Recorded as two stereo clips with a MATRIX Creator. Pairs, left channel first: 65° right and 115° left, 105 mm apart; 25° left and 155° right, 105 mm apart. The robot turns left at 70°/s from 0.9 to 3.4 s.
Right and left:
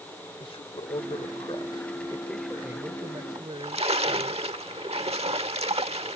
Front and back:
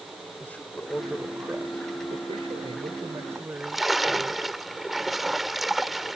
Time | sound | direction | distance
0.4 | a man speaking | 50° right | ?
3.4 | a splash | 120° left | ?